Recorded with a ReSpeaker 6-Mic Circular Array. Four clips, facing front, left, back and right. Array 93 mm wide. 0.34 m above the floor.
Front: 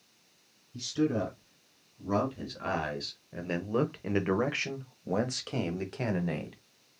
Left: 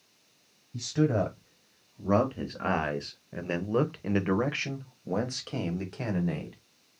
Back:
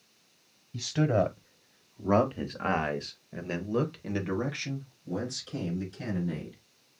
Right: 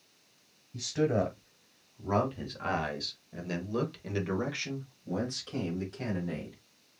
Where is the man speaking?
170° left, 1.6 m; by 6.6 s 25° left, 1.9 m.